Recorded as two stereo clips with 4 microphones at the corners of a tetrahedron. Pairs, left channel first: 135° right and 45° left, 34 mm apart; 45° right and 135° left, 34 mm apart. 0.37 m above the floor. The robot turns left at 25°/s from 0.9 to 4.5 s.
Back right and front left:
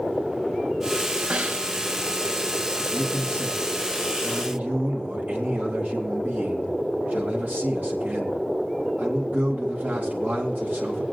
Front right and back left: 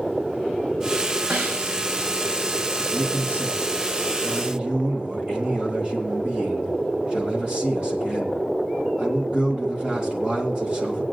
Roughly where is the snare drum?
Behind left.